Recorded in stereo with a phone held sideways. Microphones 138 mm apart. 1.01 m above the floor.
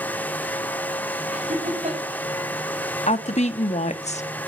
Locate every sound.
0.0 s a fan: 10° left (ahead or behind), 0.9 m
1.3 s laughter: 55° right (ahead or behind), 5 m
3.1 s a woman speaking: 55° left (ahead or behind), 1.3 m